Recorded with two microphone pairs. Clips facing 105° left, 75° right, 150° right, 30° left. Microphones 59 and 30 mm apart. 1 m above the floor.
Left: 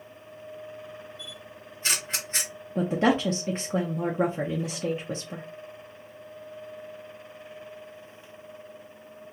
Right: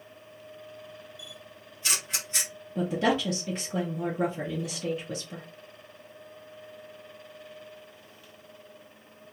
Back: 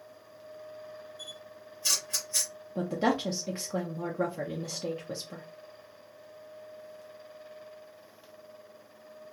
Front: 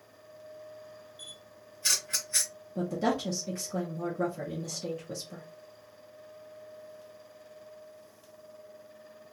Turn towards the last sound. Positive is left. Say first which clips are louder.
# left 3 dB, back 1 dB
turn(degrees=155)